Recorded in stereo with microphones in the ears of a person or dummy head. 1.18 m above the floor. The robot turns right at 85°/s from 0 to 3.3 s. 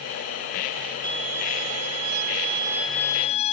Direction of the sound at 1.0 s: 155° right.